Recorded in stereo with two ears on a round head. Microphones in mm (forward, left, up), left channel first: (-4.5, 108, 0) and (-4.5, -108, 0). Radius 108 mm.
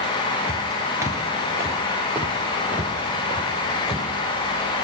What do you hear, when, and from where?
0.5 s footsteps: 15° right (ahead or behind), 1.0 m; by 4.1 s 5° right (ahead or behind), 2.5 m